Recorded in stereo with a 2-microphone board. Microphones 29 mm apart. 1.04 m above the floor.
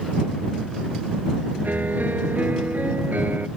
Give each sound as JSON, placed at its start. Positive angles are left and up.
{"t": 1.6, "sound": "a piano", "side_deg": -80}